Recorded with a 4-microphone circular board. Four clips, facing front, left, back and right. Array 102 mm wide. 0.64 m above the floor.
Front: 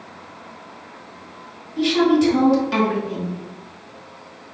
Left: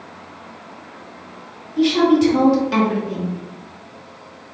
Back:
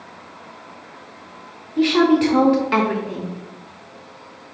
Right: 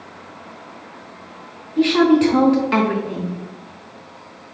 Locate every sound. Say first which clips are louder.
1.8 s a woman speaking: right 1 dB, back 1 dB; 140° right, 0.8 m